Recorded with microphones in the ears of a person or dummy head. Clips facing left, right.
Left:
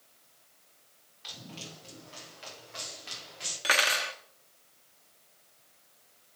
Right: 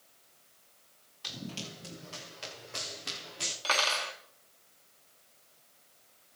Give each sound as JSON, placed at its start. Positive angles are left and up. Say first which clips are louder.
{"t": 1.2, "sound": "running footsteps", "louder": "right 5 dB", "side_deg": -75, "distance_m": 7.5}
{"t": 3.6, "sound": "cutlery clinking", "louder": "left 2 dB", "side_deg": 20, "distance_m": 1.1}